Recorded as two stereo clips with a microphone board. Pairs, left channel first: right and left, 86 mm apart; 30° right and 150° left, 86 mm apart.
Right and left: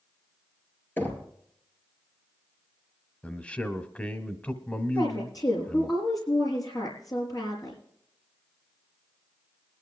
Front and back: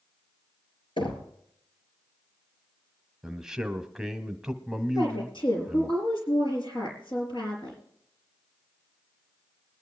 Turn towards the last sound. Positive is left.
turn(degrees=-45)